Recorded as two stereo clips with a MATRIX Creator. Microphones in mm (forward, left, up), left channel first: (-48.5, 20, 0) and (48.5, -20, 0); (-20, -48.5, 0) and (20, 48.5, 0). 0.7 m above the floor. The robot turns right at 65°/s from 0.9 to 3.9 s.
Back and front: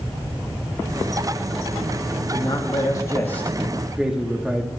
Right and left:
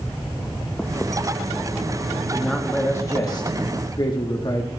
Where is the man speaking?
155° left, 1.4 m; by 4.7 s 105° right, 1.4 m.